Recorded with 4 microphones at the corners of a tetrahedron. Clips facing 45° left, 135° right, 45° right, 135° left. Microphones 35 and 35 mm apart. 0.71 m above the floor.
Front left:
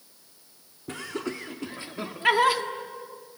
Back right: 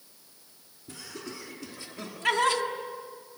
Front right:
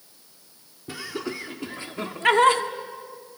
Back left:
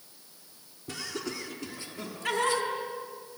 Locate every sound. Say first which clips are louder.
0.9 s laughter: front left 8 dB, front right 4 dB; 30° left, 1.7 m; by 2.6 s 35° right, 1.6 m